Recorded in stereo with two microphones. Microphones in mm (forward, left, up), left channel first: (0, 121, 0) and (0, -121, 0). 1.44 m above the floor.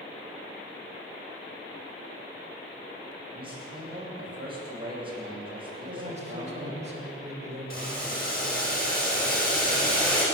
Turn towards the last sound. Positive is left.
turn(degrees=35)  # may be behind; listen again after turning